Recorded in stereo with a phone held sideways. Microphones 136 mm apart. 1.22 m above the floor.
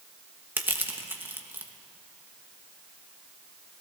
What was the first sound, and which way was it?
Crushing, 15° right (ahead or behind).